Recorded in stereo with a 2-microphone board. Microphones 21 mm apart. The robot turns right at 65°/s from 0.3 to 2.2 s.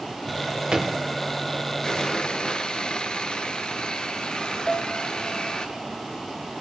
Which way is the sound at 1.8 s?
35° left (ahead or behind).